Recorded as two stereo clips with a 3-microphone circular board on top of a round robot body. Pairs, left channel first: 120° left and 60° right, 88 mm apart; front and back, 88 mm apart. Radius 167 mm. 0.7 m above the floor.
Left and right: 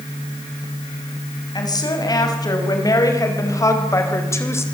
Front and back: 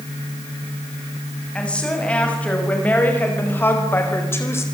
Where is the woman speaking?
80° left, 6 m; by 4.7 s 60° left, 4 m.